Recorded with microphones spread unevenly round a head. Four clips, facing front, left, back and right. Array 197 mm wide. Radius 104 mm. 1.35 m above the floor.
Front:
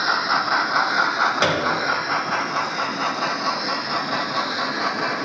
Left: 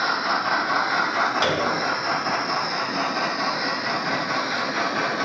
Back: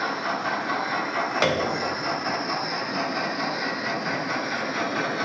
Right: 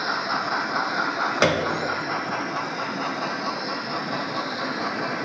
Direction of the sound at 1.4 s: 70° right.